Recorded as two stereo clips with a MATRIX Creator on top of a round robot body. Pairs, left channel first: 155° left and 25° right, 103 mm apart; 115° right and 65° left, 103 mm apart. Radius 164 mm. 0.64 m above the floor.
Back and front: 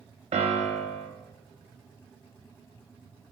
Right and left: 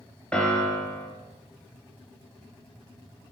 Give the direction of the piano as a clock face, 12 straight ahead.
1 o'clock.